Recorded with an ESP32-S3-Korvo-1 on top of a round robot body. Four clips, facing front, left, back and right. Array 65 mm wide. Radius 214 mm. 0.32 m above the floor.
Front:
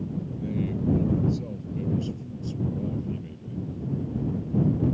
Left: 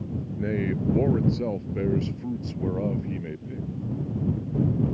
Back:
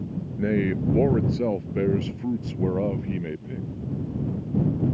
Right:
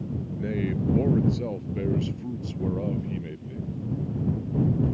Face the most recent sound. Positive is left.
turn(degrees=170)